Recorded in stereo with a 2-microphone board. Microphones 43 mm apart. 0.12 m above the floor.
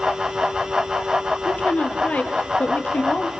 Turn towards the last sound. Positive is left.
turn(degrees=35)  # may be behind; listen again after turning